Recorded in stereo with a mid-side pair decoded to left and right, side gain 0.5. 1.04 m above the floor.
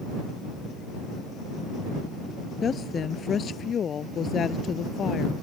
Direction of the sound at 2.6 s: 40° left.